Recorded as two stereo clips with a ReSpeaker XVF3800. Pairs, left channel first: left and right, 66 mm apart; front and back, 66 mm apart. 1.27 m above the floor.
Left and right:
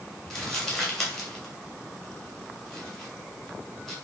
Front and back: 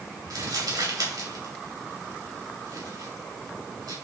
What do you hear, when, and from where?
0.3 s crumpling: 175° left, 3 m